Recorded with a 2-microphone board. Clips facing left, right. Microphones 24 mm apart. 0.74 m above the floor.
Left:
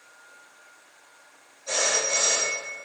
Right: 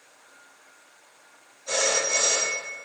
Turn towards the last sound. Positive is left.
turn(degrees=15)  # may be behind; listen again after turning